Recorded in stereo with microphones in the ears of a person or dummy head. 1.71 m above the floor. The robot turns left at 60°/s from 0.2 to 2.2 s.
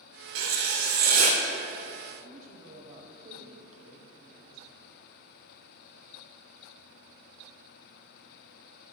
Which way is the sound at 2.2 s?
45° right (ahead or behind).